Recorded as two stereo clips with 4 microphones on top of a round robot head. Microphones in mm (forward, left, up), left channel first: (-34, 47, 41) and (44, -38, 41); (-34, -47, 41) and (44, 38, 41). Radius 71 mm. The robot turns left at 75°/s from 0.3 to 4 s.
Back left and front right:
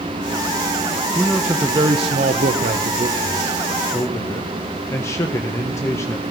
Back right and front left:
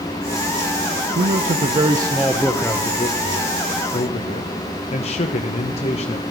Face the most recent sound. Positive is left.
turn(degrees=-160)